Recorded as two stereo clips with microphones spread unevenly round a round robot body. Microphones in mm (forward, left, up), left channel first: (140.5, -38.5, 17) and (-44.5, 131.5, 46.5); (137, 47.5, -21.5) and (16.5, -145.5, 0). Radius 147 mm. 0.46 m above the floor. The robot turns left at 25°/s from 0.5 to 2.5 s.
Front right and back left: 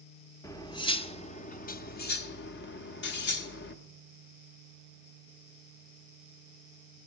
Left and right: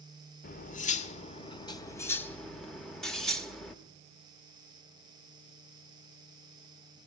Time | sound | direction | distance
0.4 | cutlery clinking | 25° left | 0.8 m